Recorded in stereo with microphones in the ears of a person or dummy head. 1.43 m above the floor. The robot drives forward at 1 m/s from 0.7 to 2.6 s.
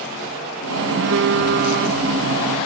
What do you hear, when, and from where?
1.0 s a phone buzzing: 75° right (ahead or behind); by 2.1 s 45° right (ahead or behind)